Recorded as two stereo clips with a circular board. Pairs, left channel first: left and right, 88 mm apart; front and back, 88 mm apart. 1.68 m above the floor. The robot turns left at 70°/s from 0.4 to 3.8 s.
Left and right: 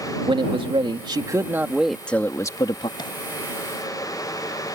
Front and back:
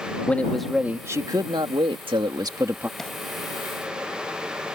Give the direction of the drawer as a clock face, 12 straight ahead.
9 o'clock.